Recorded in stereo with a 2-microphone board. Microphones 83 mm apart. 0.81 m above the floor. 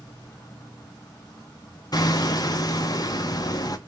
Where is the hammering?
50° left (ahead or behind), 0.6 m.